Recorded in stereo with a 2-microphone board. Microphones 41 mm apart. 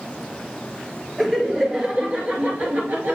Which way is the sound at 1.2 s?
5° right (ahead or behind).